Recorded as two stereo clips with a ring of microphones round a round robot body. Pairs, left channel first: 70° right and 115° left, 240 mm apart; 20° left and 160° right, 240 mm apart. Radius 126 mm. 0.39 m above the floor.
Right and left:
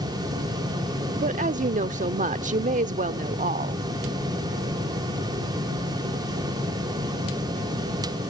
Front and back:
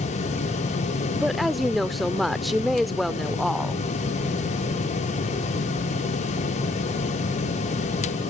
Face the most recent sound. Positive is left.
turn(degrees=110)